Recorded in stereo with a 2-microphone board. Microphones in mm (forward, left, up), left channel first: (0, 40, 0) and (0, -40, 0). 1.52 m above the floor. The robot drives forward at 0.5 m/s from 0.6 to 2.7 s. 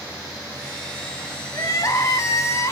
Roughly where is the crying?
Left.